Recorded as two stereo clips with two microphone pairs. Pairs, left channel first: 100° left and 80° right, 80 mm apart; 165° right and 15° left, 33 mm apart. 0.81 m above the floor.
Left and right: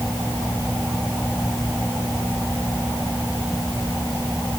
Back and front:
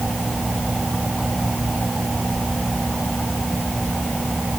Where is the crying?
No crying in this recording.